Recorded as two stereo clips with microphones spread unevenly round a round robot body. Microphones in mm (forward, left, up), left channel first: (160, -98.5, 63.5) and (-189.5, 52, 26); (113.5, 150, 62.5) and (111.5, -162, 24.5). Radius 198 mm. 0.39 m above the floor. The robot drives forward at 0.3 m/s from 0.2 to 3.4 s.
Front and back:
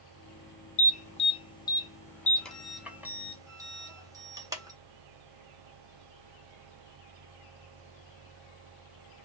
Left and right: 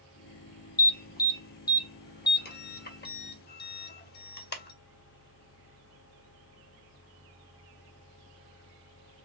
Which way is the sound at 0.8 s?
40° left.